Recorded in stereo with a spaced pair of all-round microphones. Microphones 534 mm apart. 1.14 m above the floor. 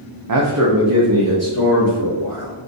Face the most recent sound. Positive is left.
turn(degrees=-25)  # may be behind; listen again after turning